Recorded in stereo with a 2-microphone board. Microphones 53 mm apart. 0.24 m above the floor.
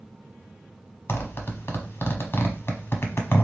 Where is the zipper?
50° left (ahead or behind), 1.0 m.